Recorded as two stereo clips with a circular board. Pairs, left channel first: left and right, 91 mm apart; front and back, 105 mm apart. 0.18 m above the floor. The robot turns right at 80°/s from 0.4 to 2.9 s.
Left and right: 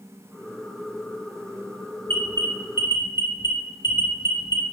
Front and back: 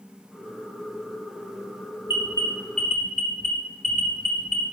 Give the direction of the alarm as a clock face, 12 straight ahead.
11 o'clock.